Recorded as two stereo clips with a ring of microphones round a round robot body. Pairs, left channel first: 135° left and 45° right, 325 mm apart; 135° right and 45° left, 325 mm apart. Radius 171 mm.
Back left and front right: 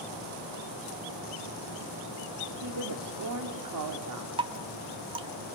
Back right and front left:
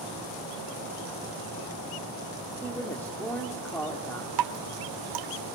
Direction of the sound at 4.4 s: 30° left.